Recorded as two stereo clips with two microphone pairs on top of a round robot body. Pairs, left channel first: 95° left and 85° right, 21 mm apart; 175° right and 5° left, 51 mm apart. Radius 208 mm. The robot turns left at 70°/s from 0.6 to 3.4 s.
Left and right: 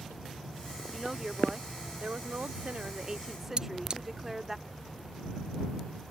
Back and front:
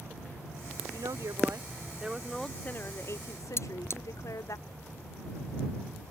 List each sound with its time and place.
0.9 s a woman speaking: 10° left; by 4.6 s 165° right
3.6 s cutlery clinking: 135° right